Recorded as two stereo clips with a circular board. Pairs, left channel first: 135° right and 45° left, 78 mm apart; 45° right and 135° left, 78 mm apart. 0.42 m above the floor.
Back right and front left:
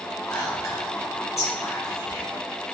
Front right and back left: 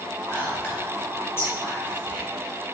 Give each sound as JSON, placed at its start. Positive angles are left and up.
{"t": 0.3, "sound": "whispering", "azimuth_deg": -95, "distance_m": 1.5}